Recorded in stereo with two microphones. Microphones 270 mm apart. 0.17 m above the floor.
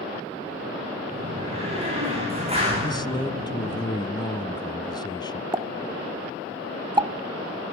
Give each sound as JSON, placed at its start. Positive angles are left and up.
{"t": 1.1, "sound": "a door slam", "side_deg": -20, "distance_m": 10.0}
{"t": 2.8, "sound": "a man speaking", "side_deg": 15, "distance_m": 1.0}
{"t": 5.5, "sound": "a pop", "side_deg": -20, "distance_m": 0.9}